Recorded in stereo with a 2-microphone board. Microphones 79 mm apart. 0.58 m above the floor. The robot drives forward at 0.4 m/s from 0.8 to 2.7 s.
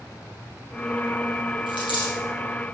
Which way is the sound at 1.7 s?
80° left.